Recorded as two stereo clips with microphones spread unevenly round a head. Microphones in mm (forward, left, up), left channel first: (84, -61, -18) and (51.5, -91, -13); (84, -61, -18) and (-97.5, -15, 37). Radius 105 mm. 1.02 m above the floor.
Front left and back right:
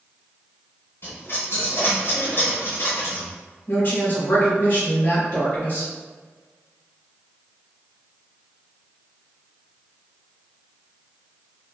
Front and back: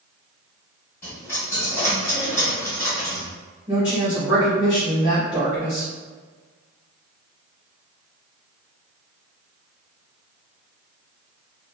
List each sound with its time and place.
1.0 s a dropped coin: 75° left, 1.5 m
3.7 s a woman speaking: 70° left, 1.4 m